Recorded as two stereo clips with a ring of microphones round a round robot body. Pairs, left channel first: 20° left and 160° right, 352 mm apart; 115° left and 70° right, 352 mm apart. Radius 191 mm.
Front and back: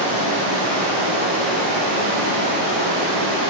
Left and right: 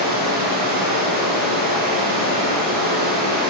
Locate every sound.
0.0 s running water: 130° right, 4 m